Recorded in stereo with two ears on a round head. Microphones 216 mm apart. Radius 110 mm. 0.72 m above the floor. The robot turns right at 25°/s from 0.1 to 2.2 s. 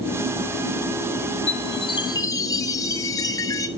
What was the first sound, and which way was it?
A chime, 30° left (ahead or behind).